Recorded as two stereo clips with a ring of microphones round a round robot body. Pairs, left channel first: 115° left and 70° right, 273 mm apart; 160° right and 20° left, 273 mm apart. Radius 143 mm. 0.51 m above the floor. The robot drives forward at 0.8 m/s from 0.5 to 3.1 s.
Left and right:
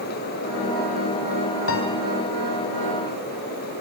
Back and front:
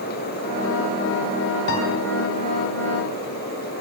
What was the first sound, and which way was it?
A piano, 155° left.